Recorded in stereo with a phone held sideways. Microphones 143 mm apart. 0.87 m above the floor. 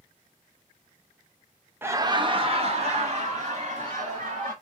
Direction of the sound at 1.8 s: 15° right (ahead or behind).